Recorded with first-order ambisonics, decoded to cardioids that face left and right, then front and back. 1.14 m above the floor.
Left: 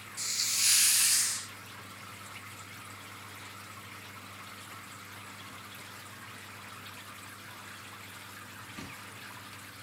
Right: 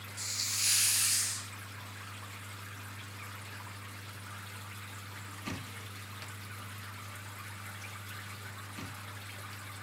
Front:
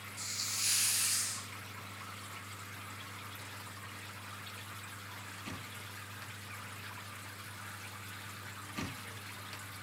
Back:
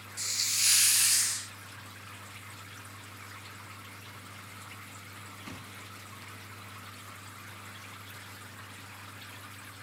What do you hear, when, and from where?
0.2 s a hiss: 155° left, 0.7 m